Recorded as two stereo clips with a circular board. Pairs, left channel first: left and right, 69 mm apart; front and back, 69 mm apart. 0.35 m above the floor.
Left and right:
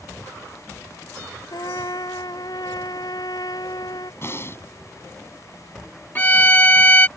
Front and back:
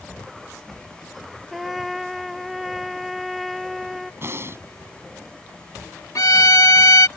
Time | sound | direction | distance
1.5 | a trumpet | 90° left | ?
4.2 | breathing | 135° left | ?
6.2 | a violin | 25° left | ?